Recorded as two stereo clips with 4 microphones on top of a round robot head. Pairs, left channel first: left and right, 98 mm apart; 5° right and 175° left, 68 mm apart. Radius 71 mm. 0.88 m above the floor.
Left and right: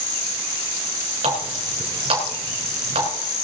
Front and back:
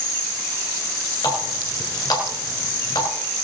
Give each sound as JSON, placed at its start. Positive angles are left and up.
{"t": 1.2, "sound": "a running tap", "azimuth_deg": -50, "distance_m": 3.5}